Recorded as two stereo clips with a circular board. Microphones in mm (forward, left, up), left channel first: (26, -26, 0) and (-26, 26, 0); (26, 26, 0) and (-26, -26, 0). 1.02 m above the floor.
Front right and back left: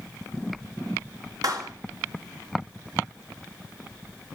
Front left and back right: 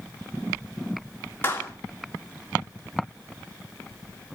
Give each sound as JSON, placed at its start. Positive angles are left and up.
{"t": 1.4, "sound": "a clap", "azimuth_deg": 105, "distance_m": 2.5}